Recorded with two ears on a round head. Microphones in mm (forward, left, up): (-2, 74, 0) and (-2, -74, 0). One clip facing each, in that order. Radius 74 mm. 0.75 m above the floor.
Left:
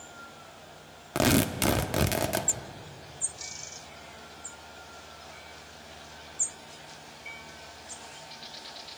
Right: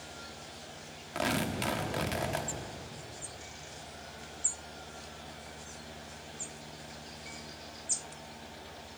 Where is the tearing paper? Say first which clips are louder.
Left 8 dB; 60° left (ahead or behind), 1.0 m.